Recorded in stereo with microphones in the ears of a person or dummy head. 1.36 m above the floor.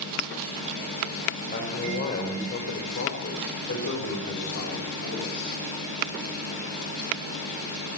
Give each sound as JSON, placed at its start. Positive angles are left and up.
{"t": 1.5, "sound": "a man speaking", "side_deg": 45, "distance_m": 4.5}